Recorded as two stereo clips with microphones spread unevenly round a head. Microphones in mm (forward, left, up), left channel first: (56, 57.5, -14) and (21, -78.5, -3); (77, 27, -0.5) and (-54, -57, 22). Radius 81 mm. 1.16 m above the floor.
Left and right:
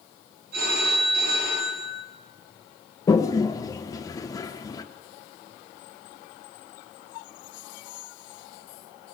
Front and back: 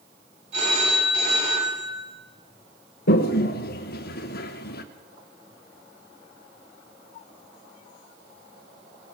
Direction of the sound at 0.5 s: 105° right.